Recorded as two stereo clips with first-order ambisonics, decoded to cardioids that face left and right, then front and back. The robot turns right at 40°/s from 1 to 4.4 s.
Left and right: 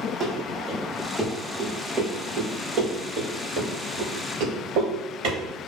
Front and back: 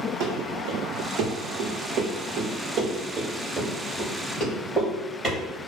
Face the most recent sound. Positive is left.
turn(degrees=-85)